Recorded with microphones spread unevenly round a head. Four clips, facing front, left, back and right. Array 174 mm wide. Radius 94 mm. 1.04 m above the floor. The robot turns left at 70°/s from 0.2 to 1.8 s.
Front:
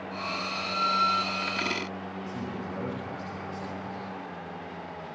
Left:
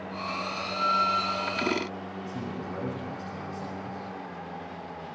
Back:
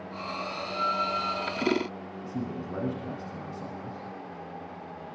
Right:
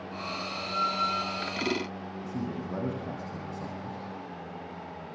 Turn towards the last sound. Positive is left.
turn(degrees=-120)